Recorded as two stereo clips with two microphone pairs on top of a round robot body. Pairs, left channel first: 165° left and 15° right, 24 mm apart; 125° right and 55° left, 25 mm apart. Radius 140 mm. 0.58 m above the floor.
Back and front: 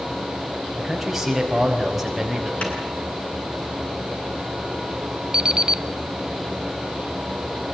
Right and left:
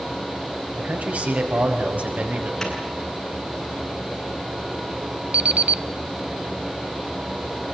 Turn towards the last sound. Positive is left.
turn(degrees=35)